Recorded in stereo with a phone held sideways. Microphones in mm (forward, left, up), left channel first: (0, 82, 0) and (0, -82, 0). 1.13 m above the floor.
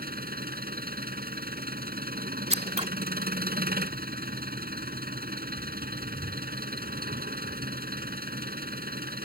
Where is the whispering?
No whispering in this recording.